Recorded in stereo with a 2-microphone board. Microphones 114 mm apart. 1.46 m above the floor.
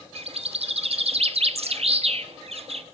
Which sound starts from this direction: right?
A bird, at 0.1 s.